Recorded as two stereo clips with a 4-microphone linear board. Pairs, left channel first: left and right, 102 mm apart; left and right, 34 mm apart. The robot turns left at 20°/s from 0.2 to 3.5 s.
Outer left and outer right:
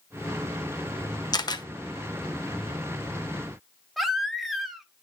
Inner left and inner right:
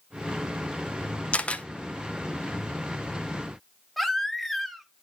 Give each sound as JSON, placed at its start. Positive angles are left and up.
{"t": 1.3, "sound": "a camera shutter", "side_deg": 40, "distance_m": 0.7}
{"t": 4.0, "sound": "a baby crying", "side_deg": 0, "distance_m": 1.0}